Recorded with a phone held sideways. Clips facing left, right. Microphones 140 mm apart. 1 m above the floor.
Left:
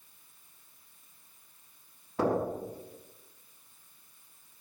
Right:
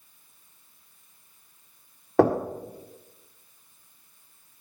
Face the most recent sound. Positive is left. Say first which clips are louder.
# right 8 dB
turn(degrees=-75)  # may be behind; listen again after turning